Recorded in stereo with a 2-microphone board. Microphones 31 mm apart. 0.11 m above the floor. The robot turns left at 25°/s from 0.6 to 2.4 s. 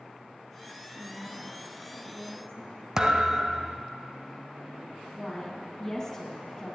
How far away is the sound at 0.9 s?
About 4 m.